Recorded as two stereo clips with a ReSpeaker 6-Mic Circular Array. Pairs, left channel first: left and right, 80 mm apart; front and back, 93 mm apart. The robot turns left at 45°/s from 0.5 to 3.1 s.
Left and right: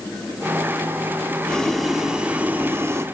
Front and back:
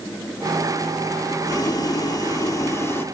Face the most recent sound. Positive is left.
turn(degrees=-55)